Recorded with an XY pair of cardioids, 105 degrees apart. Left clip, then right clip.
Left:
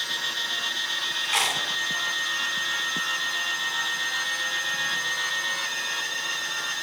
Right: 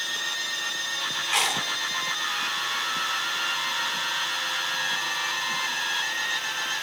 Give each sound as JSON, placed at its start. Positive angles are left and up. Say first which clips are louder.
{"t": 1.2, "sound": "chewing", "louder": "even", "azimuth_deg": 5, "distance_m": 1.9}